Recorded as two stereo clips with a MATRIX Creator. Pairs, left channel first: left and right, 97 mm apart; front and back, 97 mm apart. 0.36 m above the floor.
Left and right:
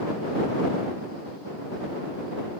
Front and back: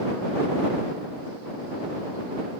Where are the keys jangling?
No keys jangling in this recording.